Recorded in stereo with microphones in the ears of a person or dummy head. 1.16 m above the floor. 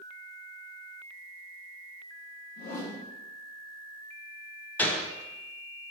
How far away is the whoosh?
About 0.8 m.